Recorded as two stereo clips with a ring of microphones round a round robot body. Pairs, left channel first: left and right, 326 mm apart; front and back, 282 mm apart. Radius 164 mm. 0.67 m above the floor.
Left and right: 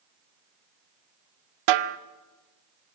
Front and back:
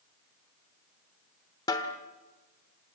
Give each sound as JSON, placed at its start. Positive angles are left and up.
{"t": 1.7, "sound": "a snare drum", "azimuth_deg": -80, "distance_m": 0.9}